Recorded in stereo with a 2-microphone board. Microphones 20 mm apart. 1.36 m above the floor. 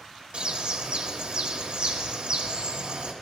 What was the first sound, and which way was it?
A bird, 55° right (ahead or behind).